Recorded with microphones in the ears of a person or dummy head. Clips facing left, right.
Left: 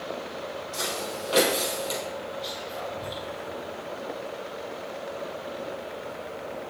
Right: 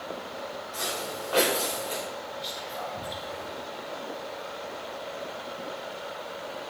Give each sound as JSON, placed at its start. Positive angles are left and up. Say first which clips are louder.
{"t": 0.7, "sound": "footsteps", "louder": "left 1 dB", "side_deg": 35, "distance_m": 3.0}
{"t": 2.4, "sound": "whispering", "louder": "left 2 dB", "side_deg": 0, "distance_m": 2.0}